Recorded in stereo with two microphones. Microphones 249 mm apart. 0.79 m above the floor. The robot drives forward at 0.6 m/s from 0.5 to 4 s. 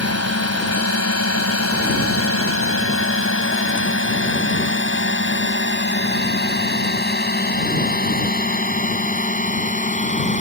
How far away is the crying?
I don't hear crying.